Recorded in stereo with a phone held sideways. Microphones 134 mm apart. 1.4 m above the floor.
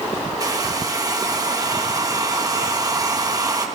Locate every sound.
0.4 s a hair dryer: 30° right (ahead or behind), 1.6 m